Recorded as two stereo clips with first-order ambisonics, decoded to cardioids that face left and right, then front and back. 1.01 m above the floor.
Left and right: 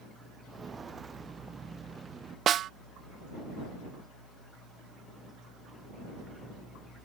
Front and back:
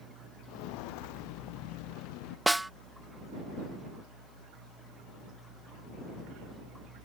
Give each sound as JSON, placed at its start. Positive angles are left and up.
{"t": 0.5, "sound": "footsteps", "azimuth_deg": -15}
{"t": 2.5, "sound": "a snare drum", "azimuth_deg": -95}